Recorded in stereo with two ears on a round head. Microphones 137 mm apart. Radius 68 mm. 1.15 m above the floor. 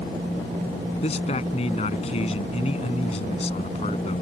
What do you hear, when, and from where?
1.0 s a man speaking: 45° left (ahead or behind)